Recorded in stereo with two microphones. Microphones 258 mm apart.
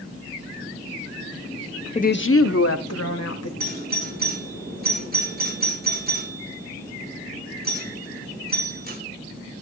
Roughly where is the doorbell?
Right.